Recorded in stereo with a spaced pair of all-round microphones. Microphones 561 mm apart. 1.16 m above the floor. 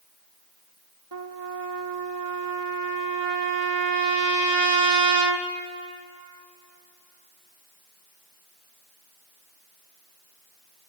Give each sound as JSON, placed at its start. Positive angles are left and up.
{"t": 1.1, "sound": "a trumpet", "side_deg": -45, "distance_m": 0.9}